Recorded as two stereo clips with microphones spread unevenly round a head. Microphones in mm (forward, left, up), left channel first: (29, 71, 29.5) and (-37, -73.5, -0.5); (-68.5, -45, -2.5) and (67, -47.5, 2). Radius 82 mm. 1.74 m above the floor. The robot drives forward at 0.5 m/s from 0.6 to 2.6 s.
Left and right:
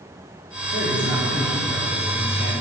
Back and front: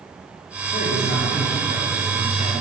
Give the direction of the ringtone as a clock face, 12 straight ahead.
No ringtone in this recording.